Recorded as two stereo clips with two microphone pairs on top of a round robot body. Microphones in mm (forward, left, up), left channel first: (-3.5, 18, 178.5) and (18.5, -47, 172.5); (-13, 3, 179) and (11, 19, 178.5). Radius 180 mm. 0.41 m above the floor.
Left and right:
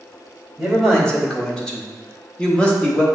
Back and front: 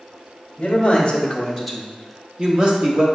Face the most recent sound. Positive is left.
turn(degrees=30)